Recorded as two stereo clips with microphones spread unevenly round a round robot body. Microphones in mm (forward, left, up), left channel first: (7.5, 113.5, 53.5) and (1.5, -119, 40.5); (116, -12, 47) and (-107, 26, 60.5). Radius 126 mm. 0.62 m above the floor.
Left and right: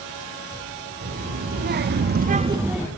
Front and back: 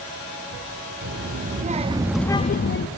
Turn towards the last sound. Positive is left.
turn(degrees=-5)